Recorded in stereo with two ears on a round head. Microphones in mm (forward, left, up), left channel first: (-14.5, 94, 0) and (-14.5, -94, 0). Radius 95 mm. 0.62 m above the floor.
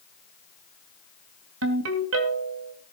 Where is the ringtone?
80° right, 2.5 m.